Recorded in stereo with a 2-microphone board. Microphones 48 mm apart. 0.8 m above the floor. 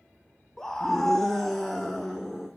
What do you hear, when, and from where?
0.6 s a scream: 10° left (ahead or behind), 0.8 m; by 2.5 s 5° left (ahead or behind), 2 m